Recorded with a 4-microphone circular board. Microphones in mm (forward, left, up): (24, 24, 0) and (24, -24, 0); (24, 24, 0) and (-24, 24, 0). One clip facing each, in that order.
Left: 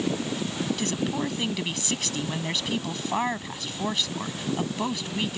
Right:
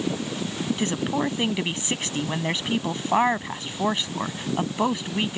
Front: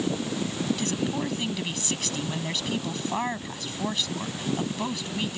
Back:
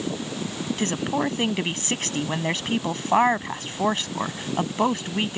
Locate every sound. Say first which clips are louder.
0.8 s a woman speaking: right 6 dB, back 4 dB; 145° right